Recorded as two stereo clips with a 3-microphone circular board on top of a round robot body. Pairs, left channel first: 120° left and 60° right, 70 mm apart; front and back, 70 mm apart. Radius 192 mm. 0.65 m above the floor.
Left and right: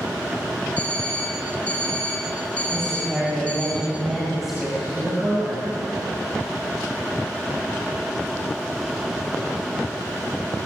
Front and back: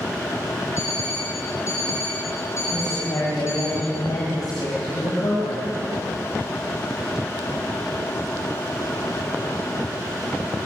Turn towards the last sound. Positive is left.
turn(degrees=25)